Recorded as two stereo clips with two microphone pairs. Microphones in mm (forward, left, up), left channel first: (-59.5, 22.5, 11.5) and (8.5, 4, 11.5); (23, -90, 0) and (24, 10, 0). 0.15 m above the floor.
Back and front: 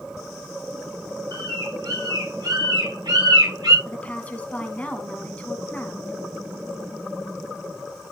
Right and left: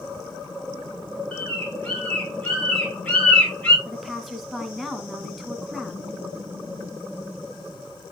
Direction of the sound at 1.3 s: 15° right.